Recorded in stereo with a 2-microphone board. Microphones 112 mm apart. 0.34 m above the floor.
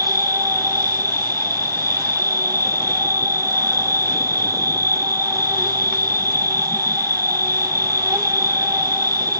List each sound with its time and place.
0.0 s an insect: 30° right (ahead or behind), 0.8 m